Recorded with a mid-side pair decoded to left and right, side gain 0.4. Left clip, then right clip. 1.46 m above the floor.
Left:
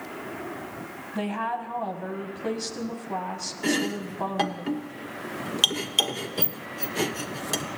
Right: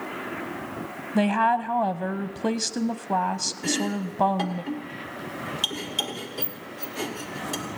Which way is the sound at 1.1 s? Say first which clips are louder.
Right 8 dB; 65° right.